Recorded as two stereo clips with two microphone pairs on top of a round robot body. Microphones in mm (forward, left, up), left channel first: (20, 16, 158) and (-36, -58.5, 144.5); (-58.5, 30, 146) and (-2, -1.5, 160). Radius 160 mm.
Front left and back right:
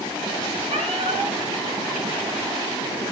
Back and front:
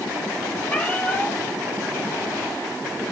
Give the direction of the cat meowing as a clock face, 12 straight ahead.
4 o'clock.